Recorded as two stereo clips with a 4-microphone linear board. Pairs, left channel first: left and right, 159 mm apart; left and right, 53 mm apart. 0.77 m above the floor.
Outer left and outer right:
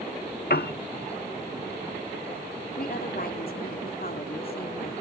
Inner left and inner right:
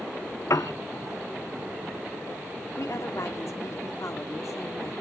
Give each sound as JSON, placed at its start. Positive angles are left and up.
{"t": 0.5, "sound": "a piano", "side_deg": 70, "distance_m": 1.0}
{"t": 2.8, "sound": "a woman speaking", "side_deg": 65, "distance_m": 2.0}